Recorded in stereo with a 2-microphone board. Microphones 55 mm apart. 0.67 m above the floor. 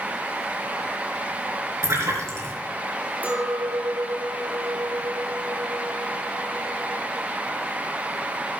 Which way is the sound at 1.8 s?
60° right (ahead or behind).